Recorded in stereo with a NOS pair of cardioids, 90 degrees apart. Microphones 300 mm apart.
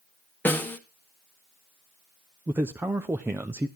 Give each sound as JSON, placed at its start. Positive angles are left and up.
{"t": 0.5, "sound": "a snare drum", "azimuth_deg": 5, "distance_m": 1.4}
{"t": 2.5, "sound": "a man speaking", "azimuth_deg": -10, "distance_m": 0.7}